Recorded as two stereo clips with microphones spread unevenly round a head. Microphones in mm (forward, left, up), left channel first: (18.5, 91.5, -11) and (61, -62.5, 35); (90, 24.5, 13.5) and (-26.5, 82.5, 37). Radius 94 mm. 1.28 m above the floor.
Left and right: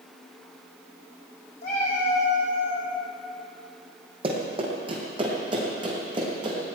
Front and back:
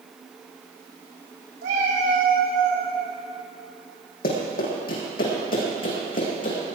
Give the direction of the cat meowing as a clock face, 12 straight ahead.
7 o'clock.